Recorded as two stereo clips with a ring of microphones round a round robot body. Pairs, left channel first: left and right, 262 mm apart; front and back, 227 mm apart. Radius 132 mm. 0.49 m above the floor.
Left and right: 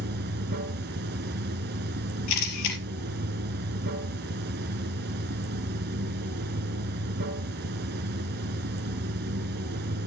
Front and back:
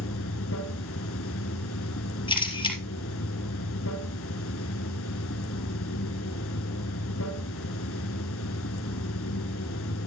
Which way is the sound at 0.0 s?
40° right.